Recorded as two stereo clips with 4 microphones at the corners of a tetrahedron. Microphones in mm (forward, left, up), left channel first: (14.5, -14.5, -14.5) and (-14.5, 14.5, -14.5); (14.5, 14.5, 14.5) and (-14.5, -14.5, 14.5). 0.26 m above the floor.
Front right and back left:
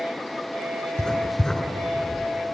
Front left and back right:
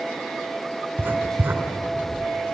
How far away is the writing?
About 2.5 m.